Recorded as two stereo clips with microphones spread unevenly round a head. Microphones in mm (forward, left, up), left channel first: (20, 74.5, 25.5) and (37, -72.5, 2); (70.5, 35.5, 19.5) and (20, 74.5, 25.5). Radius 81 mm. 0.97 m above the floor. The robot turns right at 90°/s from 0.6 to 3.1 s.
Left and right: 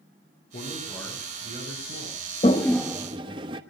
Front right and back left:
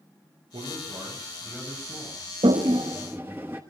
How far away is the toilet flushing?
About 1.1 m.